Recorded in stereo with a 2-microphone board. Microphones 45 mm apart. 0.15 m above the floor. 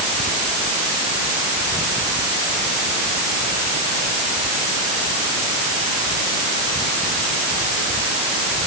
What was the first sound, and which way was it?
Only background noise.